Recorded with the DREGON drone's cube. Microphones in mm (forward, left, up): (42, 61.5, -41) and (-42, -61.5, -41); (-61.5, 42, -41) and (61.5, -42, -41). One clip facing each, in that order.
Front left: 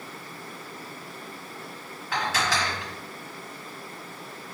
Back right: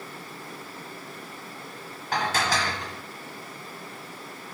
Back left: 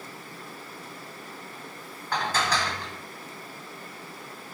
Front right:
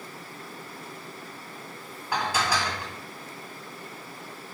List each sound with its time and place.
2.1 s dishes clattering: 110° right, 1.0 m